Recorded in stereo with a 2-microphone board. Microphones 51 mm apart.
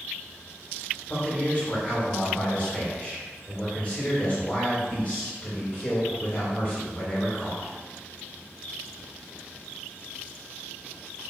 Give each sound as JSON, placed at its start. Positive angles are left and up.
{"t": 1.1, "sound": "a man speaking", "side_deg": 25, "distance_m": 1.8}